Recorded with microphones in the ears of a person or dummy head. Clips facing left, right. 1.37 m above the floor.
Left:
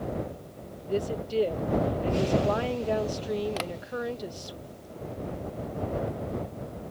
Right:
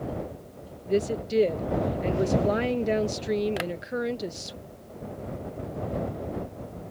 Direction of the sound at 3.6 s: 15° right (ahead or behind).